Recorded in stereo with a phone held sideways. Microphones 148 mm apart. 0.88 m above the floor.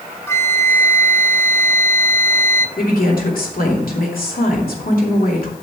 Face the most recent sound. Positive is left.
turn(degrees=75)  # may be behind; listen again after turning